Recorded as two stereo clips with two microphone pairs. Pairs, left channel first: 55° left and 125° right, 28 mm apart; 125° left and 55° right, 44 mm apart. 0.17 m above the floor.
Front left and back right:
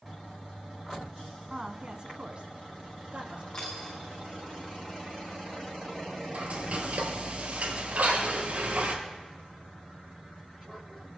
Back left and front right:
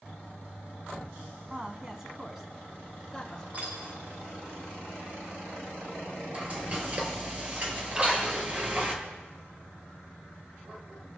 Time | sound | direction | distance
1.5 | a woman speaking | 90° right | 1.3 m
3.5 | a dropped coin | 10° right | 5.5 m
6.3 | frying | 110° right | 3.5 m
7.9 | a splash | 125° right | 5 m